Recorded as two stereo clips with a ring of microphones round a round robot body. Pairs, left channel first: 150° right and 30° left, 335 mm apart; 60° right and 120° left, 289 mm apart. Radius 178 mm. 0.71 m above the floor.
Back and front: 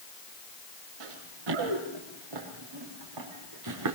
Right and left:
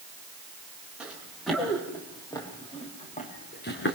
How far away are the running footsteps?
About 6.5 m.